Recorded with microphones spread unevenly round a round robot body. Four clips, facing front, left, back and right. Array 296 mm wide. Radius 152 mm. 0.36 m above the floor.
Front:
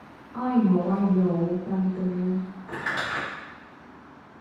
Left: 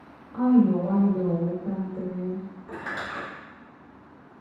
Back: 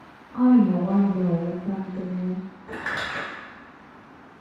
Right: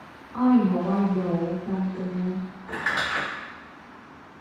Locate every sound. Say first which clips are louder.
0.3 s a woman speaking: even, back 5 dB; 125° left, 1.4 m
2.7 s crumpling: right 7 dB, even; 160° left, 1.8 m